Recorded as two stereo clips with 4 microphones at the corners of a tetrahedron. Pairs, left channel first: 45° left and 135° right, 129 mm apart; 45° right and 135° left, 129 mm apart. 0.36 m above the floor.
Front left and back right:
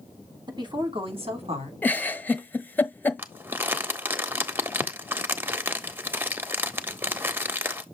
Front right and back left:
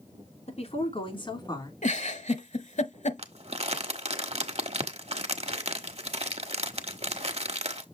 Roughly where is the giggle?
Ahead right.